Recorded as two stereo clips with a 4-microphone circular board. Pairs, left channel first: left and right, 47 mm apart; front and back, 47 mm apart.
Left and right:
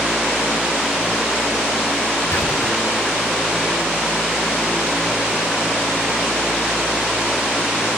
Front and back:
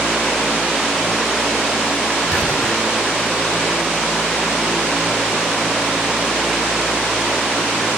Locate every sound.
2.3 s whispering: 90° left, 4 m